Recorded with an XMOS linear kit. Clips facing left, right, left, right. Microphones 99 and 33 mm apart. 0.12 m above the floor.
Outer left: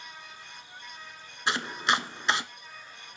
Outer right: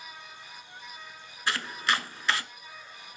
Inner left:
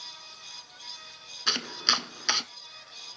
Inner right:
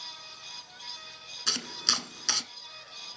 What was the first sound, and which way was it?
Chopping, 20° left (ahead or behind).